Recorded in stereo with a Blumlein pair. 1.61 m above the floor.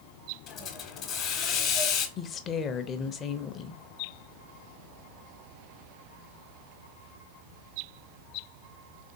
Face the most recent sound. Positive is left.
turn(degrees=25)